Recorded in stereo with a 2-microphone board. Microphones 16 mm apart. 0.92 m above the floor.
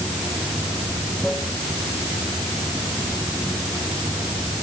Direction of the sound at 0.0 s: 5° left (ahead or behind).